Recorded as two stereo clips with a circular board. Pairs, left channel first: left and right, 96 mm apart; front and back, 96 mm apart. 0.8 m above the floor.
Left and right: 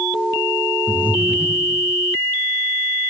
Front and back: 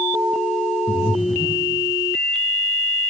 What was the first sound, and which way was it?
Breathing, 15° right.